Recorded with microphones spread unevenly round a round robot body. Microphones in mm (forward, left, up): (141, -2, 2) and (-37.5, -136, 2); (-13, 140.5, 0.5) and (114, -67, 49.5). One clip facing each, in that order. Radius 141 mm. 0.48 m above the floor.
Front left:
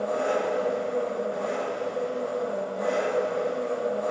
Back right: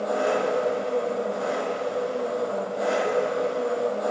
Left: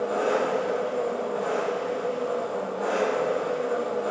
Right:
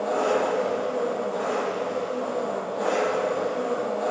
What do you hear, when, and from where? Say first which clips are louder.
0.0 s an engine running: back right 2 dB, right 1 dB; 100° right, 7.5 m